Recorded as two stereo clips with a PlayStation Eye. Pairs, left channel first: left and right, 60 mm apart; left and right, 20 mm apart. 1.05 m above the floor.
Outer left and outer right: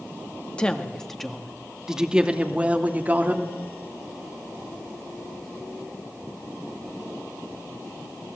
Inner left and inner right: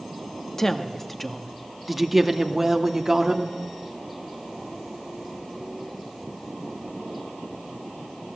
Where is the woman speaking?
20° left (ahead or behind), 1.7 m; by 3.5 s 30° right (ahead or behind), 2.5 m.